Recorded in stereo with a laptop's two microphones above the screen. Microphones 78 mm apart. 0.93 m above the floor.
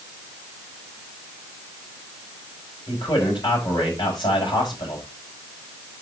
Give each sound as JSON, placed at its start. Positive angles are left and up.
{"t": 2.9, "sound": "a man speaking", "side_deg": 70, "distance_m": 5.0}